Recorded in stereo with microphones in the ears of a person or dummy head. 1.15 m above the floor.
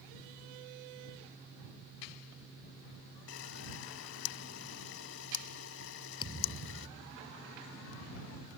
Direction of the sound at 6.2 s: 25° left (ahead or behind).